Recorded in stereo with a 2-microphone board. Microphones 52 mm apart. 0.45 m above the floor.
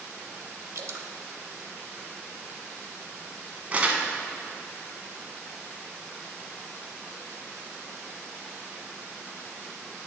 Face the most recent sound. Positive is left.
turn(degrees=-25)  # may be behind; listen again after turning